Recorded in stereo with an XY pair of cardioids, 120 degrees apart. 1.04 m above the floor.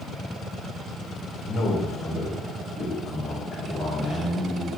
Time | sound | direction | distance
1.5 | a man speaking | 30° left | 3 m